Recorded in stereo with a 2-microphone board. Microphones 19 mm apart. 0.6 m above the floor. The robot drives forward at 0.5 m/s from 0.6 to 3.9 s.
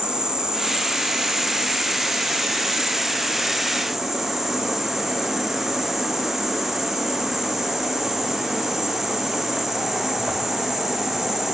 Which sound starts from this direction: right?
An insect, at 0.0 s.